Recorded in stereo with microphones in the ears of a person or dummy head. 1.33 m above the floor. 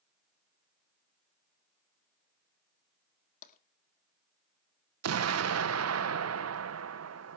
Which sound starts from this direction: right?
An explosion, at 5.0 s.